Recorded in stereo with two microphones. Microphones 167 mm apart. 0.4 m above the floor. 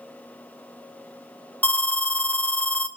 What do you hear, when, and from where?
1.6 s an alarm: 10° left (ahead or behind), 2.5 m